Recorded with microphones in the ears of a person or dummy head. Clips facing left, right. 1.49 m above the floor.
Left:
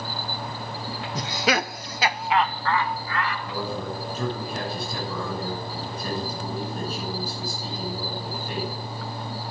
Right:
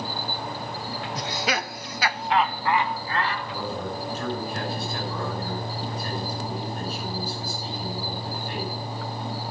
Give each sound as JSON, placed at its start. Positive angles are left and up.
{"t": 1.1, "sound": "laughter", "side_deg": 75, "distance_m": 0.9}
{"t": 3.5, "sound": "a man speaking", "side_deg": 90, "distance_m": 8.0}